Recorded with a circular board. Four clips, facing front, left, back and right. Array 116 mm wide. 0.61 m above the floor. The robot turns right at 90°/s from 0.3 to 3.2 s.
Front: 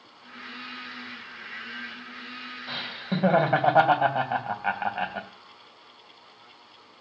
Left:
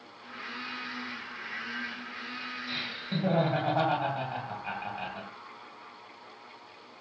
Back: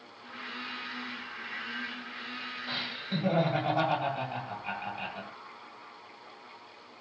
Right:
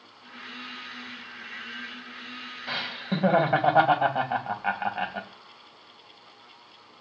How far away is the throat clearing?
I don't hear throat clearing.